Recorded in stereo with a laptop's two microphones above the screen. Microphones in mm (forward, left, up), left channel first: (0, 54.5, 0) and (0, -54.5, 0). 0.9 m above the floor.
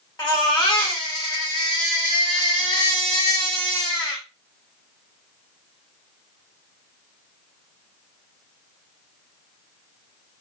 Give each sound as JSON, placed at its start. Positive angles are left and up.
{"t": 0.2, "sound": "a baby crying", "side_deg": 40, "distance_m": 2.0}